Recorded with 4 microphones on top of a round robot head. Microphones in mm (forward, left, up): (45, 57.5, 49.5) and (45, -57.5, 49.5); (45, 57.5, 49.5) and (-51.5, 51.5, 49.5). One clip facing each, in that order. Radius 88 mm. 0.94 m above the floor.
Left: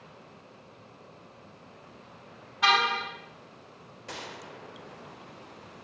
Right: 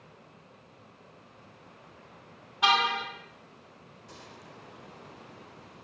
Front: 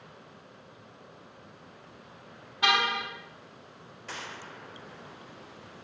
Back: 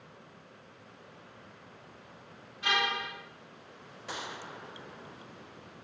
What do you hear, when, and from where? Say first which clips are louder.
2.6 s a car horn: even, front 5 dB; 20° right, 5.5 m
4.1 s a gunshot: left 8 dB, back 1 dB; 110° left, 0.9 m